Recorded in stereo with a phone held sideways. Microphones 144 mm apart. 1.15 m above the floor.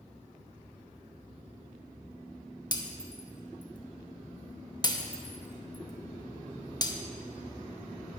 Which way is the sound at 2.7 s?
30° left (ahead or behind).